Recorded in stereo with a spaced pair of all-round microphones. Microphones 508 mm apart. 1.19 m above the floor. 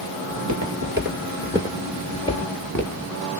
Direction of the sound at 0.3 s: 40° right (ahead or behind).